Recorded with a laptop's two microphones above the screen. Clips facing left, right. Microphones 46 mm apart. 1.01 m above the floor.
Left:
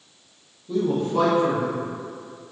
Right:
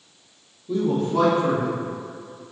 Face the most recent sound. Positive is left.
turn(degrees=15)  # may be behind; listen again after turning